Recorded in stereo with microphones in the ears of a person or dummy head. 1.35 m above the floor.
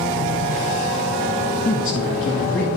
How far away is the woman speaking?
About 0.6 m.